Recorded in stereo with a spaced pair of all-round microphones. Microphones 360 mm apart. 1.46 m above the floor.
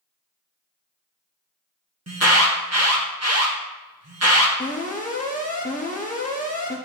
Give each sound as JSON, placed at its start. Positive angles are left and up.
{"t": 2.1, "sound": "an alarm", "side_deg": -45, "distance_m": 1.7}
{"t": 4.6, "sound": "an alarm", "side_deg": 20, "distance_m": 1.5}